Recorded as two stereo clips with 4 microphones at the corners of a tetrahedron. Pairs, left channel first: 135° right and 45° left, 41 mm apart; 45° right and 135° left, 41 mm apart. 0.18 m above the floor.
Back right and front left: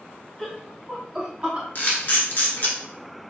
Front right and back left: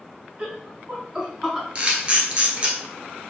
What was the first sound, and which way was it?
Laughter, 155° left.